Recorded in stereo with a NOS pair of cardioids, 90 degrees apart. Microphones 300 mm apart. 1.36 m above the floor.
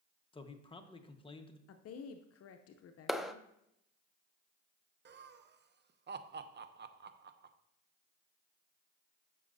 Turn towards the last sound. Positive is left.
turn(degrees=-35)